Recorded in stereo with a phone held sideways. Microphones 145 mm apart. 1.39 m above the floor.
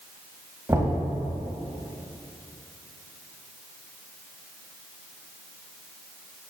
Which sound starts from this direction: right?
Knocking, at 0.7 s.